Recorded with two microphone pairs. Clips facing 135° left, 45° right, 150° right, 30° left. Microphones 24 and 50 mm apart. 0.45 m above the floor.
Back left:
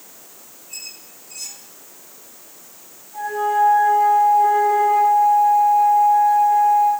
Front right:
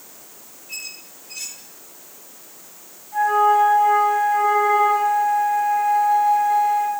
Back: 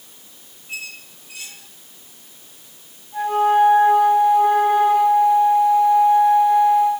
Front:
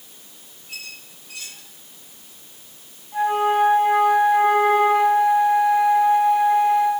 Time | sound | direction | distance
0.7 | a squeak | 80° right | 3 m
3.1 | a flute | 40° right | 4 m